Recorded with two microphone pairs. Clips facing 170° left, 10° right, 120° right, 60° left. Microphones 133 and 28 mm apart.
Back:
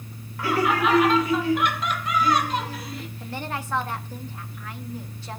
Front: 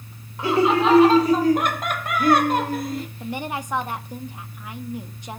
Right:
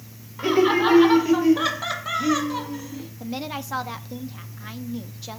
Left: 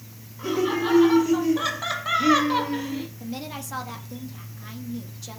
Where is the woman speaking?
70° right, 1.1 m.